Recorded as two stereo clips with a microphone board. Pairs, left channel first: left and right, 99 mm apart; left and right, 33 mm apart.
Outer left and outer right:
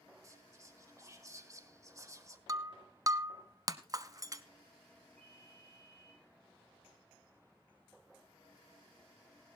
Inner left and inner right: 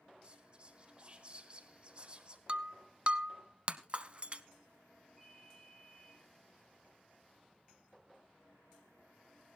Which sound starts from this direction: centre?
A ringtone, at 5.2 s.